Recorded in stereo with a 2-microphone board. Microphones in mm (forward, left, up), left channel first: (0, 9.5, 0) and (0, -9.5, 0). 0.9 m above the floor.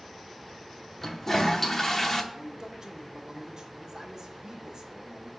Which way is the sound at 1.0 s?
20° left (ahead or behind).